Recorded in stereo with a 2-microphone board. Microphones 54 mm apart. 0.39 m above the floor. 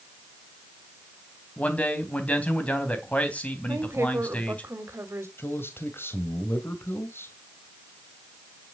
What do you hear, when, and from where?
1.6 s a man speaking: 25° left (ahead or behind), 3 m
3.7 s a woman speaking: 50° right (ahead or behind), 2 m
5.4 s a man speaking: 45° left (ahead or behind), 1.8 m